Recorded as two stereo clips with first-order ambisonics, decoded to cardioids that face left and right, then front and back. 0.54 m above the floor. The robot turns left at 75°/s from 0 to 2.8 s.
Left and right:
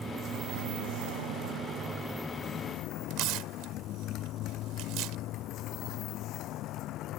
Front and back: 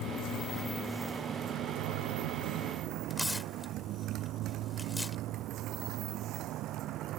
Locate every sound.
0.0 s a motorcycle: 15° right; by 7.2 s 135° left
3.1 s tearing paper: 85° right